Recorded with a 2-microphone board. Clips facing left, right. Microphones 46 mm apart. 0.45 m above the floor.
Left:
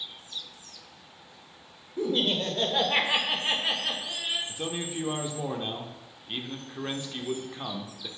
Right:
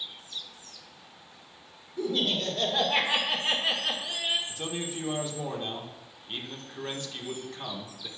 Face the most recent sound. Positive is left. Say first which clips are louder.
# left 1 dB
turn(degrees=20)  # may be behind; listen again after turning